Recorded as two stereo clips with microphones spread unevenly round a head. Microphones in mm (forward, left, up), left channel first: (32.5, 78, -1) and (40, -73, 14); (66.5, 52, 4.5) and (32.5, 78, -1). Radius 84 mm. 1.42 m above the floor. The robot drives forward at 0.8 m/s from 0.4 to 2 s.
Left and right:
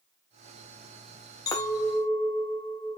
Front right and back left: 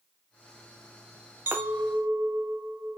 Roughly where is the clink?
Behind left.